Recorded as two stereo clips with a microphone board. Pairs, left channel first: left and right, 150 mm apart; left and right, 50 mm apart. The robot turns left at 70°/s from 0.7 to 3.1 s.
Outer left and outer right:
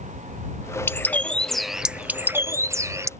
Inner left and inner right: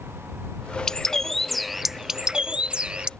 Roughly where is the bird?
Centre.